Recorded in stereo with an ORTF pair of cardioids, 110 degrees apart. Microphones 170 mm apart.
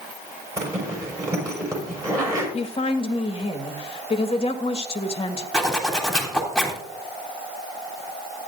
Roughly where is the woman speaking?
Ahead left.